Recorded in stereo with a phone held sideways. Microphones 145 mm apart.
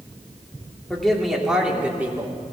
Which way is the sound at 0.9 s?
5° left (ahead or behind).